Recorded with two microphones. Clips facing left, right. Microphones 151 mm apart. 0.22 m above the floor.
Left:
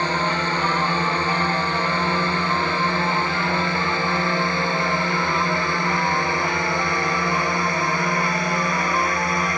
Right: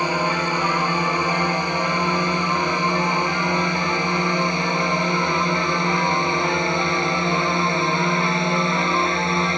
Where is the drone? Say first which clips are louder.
Right 1 dB; 10° right (ahead or behind); by 9.6 s 25° right (ahead or behind).